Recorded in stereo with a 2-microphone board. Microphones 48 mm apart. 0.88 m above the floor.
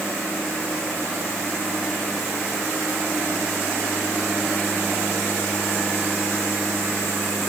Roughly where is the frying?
No frying in this recording.